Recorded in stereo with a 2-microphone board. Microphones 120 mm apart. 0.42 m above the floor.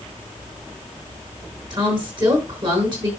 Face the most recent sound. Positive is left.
turn(degrees=-40)  # may be behind; listen again after turning